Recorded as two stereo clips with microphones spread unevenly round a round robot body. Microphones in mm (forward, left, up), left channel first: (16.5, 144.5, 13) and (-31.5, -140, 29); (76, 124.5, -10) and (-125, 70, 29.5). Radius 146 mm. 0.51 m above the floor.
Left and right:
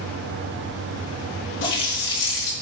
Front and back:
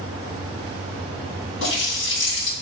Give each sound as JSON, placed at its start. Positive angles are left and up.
{"t": 1.6, "sound": "a running tap", "azimuth_deg": 30, "distance_m": 2.5}